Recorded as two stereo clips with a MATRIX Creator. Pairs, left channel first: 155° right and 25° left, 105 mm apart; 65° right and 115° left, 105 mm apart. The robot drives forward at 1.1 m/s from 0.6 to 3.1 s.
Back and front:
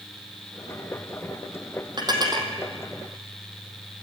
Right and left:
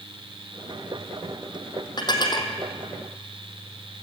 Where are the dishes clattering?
20° right, 3 m; by 2.5 s 30° right, 2.5 m.